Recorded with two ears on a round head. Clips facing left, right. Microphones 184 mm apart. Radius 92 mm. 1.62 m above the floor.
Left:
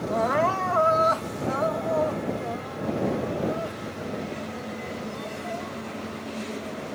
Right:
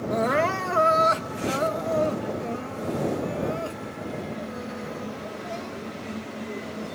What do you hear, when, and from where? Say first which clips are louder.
0.1 s crying: right 1 dB; 30° right (ahead or behind)